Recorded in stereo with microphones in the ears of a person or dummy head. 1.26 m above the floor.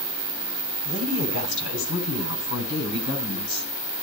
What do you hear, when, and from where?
0.8 s a woman speaking: 85° left, 9.5 m; by 3.7 s 80° left, 11 m